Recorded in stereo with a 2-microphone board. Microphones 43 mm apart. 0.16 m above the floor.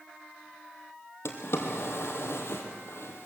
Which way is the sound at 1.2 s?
70° left (ahead or behind).